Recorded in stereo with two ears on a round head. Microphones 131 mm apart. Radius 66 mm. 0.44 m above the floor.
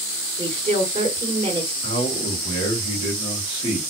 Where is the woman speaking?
30° right (ahead or behind), 2 m.